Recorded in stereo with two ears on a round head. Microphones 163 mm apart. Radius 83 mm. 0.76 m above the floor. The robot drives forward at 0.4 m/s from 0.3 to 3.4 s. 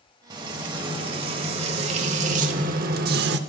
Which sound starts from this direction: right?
Frying, at 0.3 s.